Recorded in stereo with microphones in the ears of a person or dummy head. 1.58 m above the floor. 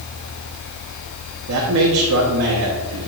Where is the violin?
I don't hear a violin.